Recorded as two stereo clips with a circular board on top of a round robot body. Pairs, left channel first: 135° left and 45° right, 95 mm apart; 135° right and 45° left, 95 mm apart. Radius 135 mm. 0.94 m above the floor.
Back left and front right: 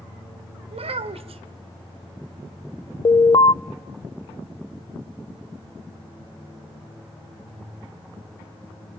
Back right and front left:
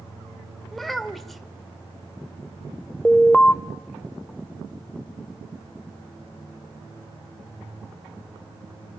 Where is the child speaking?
45° right, 1.7 m.